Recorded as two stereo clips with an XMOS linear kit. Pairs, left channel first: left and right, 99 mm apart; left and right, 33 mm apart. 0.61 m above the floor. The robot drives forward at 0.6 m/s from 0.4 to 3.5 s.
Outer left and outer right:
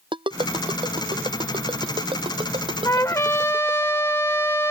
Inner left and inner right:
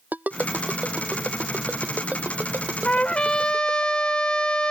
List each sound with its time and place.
0.1 s a ringtone: 55° right (ahead or behind); by 3.9 s 65° right (ahead or behind)
2.9 s a trumpet: 35° left (ahead or behind); by 4.7 s 25° left (ahead or behind)